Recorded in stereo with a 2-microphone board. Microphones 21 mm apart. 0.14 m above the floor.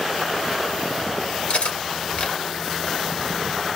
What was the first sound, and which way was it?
Cutlery clinking, 60° left (ahead or behind).